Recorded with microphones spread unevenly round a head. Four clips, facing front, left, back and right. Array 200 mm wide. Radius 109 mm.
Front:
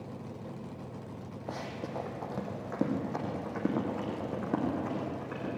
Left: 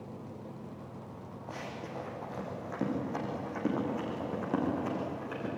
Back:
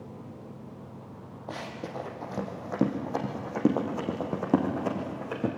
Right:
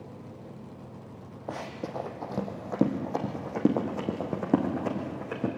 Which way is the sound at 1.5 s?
85° right.